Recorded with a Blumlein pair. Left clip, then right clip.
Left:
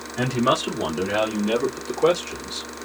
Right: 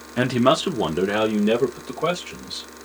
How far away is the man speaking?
About 0.9 m.